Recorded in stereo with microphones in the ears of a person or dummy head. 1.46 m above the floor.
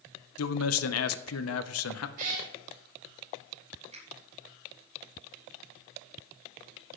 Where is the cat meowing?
45° right (ahead or behind), 3 m.